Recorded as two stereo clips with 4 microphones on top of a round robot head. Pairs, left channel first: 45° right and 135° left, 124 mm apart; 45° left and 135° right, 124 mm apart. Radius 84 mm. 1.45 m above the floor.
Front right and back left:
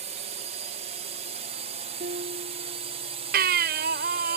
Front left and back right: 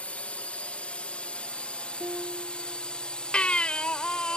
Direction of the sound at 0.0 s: 125° left.